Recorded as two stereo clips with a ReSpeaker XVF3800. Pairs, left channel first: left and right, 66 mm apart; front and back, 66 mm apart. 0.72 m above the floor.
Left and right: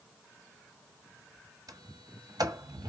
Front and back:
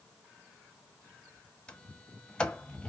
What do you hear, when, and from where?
1.7 s a sliding door: 75° right, 1.4 m